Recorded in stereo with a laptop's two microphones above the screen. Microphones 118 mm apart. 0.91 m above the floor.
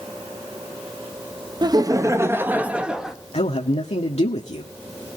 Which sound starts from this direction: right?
Laughter, at 1.6 s.